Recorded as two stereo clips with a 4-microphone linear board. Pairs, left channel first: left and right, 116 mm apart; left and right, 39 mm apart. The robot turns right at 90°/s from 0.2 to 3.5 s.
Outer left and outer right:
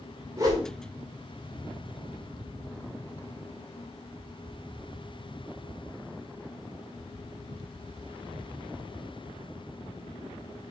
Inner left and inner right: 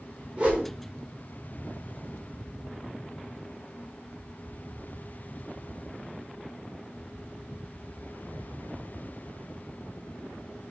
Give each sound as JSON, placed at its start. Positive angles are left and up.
{"t": 0.4, "sound": "a whoosh", "side_deg": -25, "distance_m": 2.0}